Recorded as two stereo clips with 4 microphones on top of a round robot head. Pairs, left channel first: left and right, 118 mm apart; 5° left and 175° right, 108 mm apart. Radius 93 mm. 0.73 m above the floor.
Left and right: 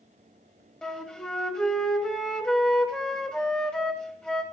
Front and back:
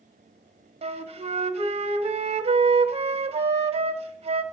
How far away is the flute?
About 1.3 m.